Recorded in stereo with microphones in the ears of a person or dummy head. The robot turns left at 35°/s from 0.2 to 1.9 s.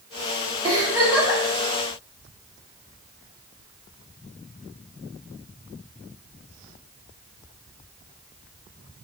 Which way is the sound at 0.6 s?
25° right (ahead or behind).